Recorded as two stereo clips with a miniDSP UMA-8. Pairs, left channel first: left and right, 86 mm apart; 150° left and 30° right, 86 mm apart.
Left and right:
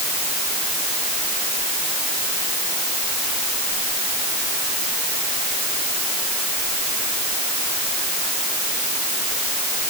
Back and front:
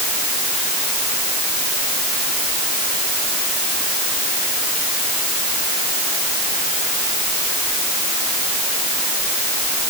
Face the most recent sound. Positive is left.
No sound to turn to.